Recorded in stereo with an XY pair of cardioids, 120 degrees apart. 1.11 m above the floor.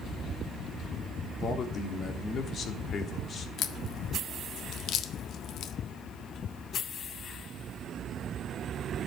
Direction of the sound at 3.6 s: 60° left.